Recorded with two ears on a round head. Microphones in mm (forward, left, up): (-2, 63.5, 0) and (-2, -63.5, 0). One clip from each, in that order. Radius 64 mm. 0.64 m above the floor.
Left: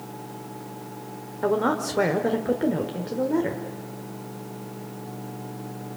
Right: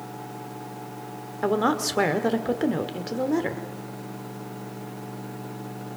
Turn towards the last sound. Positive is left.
turn(degrees=-70)  # may be behind; listen again after turning